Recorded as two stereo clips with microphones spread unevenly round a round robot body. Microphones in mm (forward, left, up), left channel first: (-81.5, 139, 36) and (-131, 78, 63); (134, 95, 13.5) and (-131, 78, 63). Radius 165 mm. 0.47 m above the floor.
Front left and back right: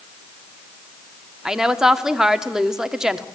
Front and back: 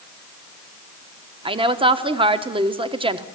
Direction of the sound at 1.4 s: 110° left.